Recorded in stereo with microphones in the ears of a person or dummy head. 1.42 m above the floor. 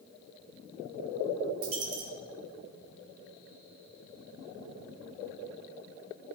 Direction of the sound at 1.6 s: 55° right (ahead or behind).